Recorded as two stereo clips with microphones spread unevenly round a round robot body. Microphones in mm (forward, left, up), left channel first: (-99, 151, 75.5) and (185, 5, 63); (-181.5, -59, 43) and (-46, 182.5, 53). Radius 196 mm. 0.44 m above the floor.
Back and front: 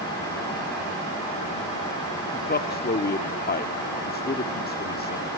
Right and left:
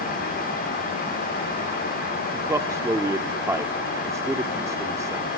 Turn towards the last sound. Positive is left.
turn(degrees=135)